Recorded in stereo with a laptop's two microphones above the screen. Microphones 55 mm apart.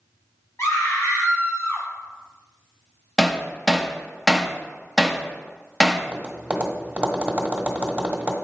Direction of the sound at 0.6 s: 60° left (ahead or behind).